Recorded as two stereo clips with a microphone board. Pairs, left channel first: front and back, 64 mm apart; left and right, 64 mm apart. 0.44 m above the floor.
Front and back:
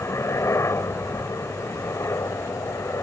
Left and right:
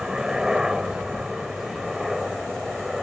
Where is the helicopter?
15° right; by 3.0 s 5° right.